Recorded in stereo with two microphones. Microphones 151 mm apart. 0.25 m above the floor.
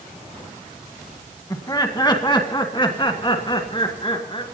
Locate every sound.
1.5 s laughter: 25° left (ahead or behind), 1.9 m; by 4.4 s 35° left (ahead or behind), 3.5 m